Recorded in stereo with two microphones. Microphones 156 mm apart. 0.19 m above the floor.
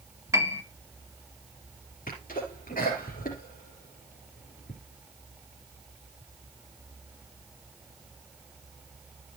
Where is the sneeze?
65° left (ahead or behind), 3 m.